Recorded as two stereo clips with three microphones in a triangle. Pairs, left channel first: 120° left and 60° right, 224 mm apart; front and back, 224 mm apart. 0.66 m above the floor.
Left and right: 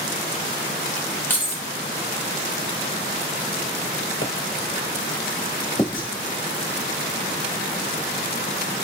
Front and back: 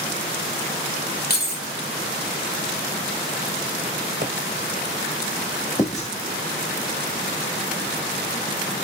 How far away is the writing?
About 1.3 m.